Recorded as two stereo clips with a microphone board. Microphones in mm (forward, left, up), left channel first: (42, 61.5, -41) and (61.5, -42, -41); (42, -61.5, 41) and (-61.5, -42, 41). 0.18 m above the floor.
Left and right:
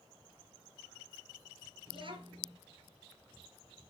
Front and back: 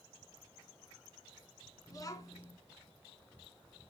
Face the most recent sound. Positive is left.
turn(degrees=-60)